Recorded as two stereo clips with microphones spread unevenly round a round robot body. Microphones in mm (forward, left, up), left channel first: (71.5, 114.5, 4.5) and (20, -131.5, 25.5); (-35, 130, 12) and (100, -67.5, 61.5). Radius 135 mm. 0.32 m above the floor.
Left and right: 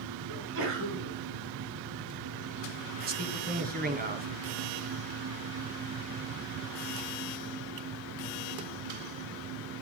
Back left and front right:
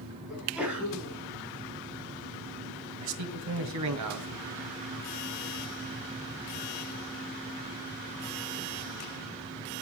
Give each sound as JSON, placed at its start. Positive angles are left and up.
{"t": 0.3, "sound": "a sneeze", "azimuth_deg": -145, "distance_m": 2.5}
{"t": 3.0, "sound": "a man speaking", "azimuth_deg": -45, "distance_m": 2.5}